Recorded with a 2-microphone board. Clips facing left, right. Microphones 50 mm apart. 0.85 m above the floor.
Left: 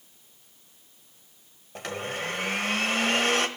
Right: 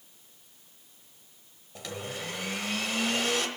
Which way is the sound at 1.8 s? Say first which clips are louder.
Left 5 dB; 50° left (ahead or behind).